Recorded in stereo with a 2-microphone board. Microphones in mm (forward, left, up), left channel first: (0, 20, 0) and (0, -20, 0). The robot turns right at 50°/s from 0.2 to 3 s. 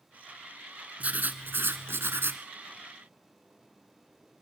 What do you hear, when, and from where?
1.0 s writing: 140° right, 1.1 m; by 2.4 s 70° right, 1.1 m